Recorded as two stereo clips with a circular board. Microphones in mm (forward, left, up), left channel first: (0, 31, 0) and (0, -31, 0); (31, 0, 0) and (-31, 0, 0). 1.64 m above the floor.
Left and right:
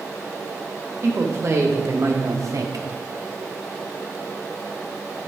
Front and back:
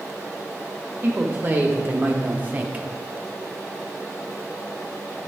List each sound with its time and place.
1.0 s a man speaking: 130° right, 2 m; by 2.9 s 115° right, 1.0 m